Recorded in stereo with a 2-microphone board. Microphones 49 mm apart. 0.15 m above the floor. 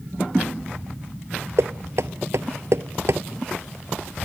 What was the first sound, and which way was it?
Knocking, 70° right (ahead or behind).